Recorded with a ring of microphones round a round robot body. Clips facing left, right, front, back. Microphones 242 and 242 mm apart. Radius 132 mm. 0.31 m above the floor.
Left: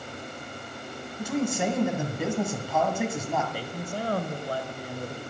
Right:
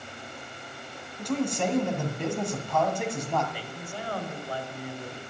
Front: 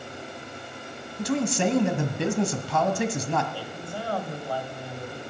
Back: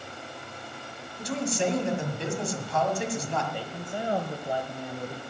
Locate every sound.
1.2 s a man speaking: 5° left, 1.9 m
3.5 s a man speaking: 115° left, 1.8 m